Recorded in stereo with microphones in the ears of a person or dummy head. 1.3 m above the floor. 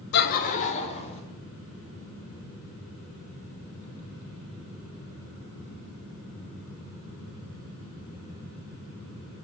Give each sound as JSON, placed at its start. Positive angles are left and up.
{"t": 0.1, "sound": "laughter", "side_deg": 60, "distance_m": 0.6}